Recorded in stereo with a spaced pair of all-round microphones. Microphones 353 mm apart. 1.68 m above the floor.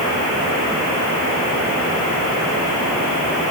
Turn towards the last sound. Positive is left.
No sound to turn to.